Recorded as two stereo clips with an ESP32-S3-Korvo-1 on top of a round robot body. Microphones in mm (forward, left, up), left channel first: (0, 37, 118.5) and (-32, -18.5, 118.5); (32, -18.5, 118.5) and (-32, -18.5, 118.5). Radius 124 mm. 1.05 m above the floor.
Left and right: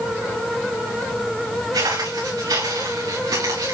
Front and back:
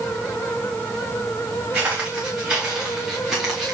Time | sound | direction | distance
1.7 | footsteps | 110° right | 5 m